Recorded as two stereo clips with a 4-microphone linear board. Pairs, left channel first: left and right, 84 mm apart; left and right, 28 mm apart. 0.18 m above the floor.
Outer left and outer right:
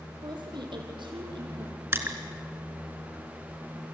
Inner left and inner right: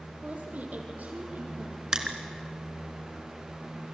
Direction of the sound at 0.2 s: 65° right (ahead or behind).